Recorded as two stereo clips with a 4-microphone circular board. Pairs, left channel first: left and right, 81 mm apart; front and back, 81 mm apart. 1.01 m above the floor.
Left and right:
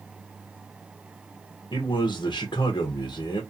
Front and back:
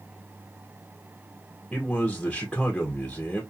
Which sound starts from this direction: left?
A man speaking, at 1.7 s.